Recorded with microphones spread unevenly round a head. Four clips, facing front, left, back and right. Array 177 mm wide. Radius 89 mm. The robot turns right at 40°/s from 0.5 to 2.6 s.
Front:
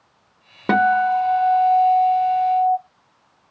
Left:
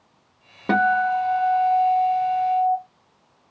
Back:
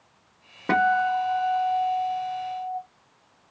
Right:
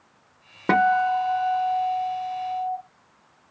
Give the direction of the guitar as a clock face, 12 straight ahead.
1 o'clock.